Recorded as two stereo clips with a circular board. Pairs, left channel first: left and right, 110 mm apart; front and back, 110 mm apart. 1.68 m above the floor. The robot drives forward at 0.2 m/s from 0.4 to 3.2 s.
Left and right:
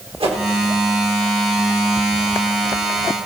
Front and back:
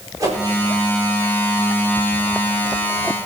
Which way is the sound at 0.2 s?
120° right.